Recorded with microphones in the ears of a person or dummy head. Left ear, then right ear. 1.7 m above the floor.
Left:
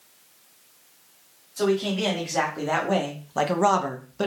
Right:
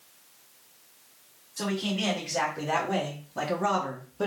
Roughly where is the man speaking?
Left.